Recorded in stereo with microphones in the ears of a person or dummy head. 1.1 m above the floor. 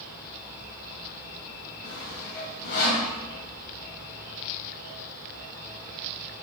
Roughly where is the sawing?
Left.